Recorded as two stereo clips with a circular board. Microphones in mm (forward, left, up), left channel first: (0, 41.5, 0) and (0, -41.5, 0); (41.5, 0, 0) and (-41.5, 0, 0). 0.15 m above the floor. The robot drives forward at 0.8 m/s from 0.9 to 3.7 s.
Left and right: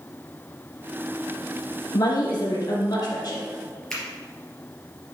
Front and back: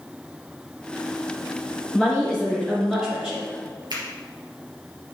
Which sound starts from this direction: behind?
A finger snap, at 3.9 s.